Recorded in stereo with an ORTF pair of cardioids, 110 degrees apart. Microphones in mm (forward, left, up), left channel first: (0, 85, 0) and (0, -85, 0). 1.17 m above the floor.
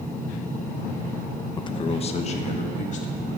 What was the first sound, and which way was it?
A man speaking, 25° left.